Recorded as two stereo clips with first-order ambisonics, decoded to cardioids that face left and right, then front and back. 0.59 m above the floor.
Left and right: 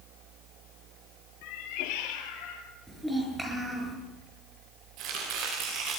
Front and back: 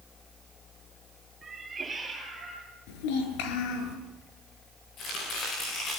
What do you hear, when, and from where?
1.4 s a cat meowing: 105° left, 4.5 m; by 2.6 s 95° left, 5.5 m
2.9 s a child speaking: 5° right, 6 m
5.0 s chopping: 55° right, 9.5 m